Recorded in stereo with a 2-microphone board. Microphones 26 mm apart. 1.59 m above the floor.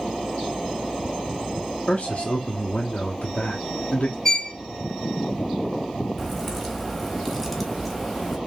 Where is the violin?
20° left (ahead or behind), 1.0 m.